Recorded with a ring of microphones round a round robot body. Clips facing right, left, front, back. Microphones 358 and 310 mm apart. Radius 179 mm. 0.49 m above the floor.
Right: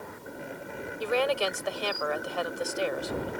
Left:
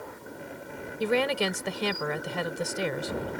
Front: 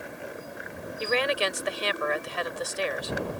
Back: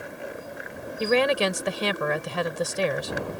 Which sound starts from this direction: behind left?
A woman speaking, at 1.0 s.